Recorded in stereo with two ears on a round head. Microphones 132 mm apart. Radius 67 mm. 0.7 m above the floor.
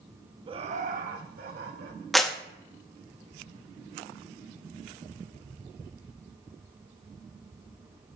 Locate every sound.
0.5 s laughter: 30° right (ahead or behind), 0.7 m; by 2.0 s 75° right (ahead or behind), 2.5 m
2.1 s a clap: centre (ahead or behind), 0.8 m